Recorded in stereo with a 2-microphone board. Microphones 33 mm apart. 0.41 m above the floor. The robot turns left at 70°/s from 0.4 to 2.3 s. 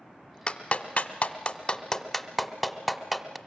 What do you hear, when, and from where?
0.5 s a clap: 35° left (ahead or behind), 1.1 m; by 3.4 s 5° right (ahead or behind), 1.1 m